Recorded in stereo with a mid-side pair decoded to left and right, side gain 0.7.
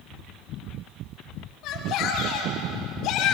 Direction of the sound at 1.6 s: 60° left.